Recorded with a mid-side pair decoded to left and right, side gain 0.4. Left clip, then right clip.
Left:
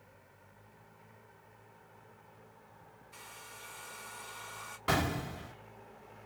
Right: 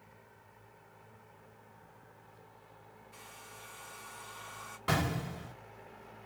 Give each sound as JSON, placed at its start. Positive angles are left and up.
{"t": 3.1, "sound": "a hair dryer", "azimuth_deg": 20, "distance_m": 2.0}
{"t": 4.9, "sound": "an explosion", "azimuth_deg": 10, "distance_m": 2.5}